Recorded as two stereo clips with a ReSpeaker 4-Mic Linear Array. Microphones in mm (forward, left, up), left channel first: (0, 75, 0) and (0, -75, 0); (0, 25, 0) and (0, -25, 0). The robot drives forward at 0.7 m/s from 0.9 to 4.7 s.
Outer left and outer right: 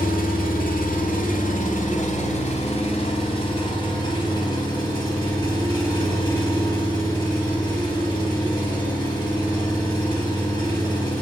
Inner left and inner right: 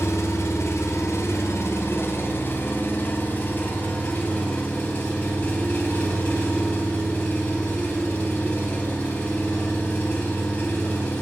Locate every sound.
0.0 s an engine running: 70° left (ahead or behind), 1.4 m; by 11.2 s 25° left (ahead or behind), 3 m